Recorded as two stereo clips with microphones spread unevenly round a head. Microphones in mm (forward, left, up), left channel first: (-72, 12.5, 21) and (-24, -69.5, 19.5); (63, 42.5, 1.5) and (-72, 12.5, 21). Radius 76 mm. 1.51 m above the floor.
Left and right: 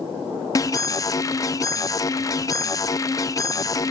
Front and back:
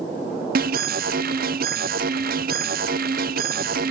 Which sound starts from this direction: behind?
An alarm, at 0.6 s.